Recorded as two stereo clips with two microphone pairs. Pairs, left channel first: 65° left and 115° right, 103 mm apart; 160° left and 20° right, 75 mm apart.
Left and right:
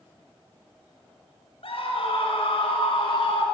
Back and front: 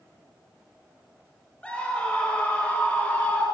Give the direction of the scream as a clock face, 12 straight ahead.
9 o'clock.